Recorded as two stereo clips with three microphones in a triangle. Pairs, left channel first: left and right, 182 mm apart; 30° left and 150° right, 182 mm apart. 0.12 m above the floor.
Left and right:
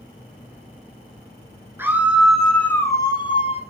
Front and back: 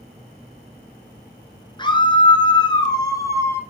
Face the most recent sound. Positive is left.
turn(degrees=95)